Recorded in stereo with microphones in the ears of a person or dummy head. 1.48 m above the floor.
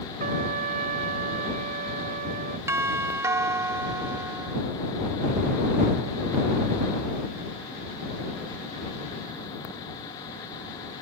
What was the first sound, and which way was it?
A trumpet, 45° right (ahead or behind).